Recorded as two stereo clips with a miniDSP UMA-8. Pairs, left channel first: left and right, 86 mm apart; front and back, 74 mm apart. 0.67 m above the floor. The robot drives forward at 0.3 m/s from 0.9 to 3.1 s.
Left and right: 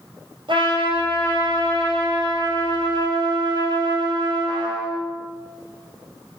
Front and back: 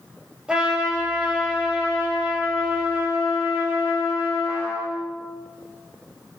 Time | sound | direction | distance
0.5 | a trumpet | 105° right | 2.5 m